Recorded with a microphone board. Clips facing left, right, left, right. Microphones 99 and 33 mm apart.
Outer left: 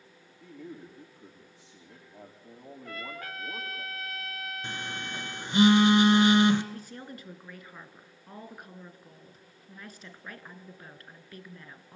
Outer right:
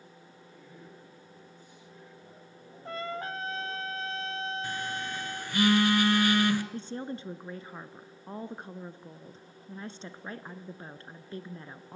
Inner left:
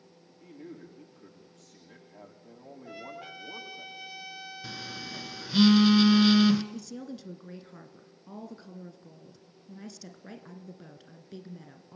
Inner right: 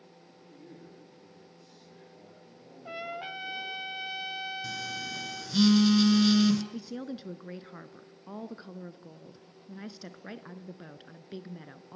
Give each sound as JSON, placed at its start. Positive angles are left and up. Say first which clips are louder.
{"t": 0.4, "sound": "a man speaking", "louder": "outer left 10 dB, inner left 6 dB", "side_deg": 65, "distance_m": 7.5}
{"t": 2.9, "sound": "a trumpet", "louder": "outer right 6 dB, inner right 6 dB", "side_deg": -30, "distance_m": 0.7}
{"t": 4.6, "sound": "a phone buzzing", "louder": "outer right 3 dB, inner right 4 dB", "side_deg": 20, "distance_m": 1.5}
{"t": 6.7, "sound": "a woman speaking", "louder": "outer right 6 dB, inner right 2 dB", "side_deg": -25, "distance_m": 1.1}